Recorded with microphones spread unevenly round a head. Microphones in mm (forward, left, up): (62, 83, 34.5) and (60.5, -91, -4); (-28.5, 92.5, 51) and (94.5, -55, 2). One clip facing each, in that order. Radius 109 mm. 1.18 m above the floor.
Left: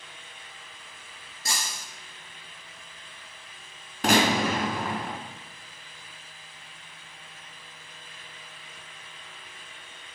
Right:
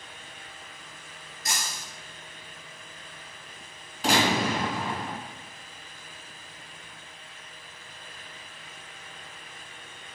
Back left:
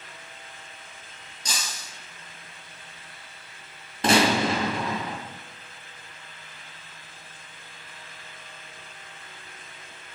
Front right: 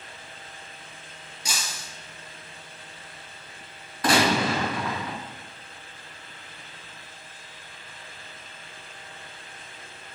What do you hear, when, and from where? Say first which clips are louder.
1.4 s breaking glass: even, even; 35° left, 3.5 m
4.0 s a gunshot: left 2 dB, back left 1 dB; 70° left, 3.5 m